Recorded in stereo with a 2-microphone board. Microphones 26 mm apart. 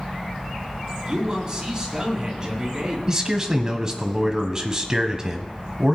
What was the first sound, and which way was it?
A man speaking, 30° right (ahead or behind).